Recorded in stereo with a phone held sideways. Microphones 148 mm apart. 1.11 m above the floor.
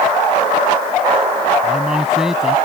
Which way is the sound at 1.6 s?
5° right (ahead or behind).